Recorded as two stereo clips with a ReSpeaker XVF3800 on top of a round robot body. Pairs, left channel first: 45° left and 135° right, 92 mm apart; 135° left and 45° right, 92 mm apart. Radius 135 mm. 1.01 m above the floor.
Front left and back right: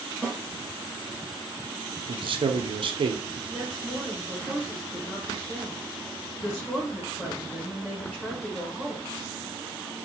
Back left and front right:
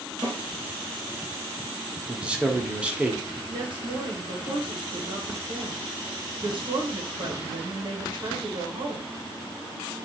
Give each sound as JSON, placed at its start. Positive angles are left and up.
{"t": 0.2, "sound": "a snare drum", "azimuth_deg": -25, "distance_m": 1.1}
{"t": 2.1, "sound": "a man speaking", "azimuth_deg": -120, "distance_m": 0.6}
{"t": 3.5, "sound": "a woman speaking", "azimuth_deg": -30, "distance_m": 0.9}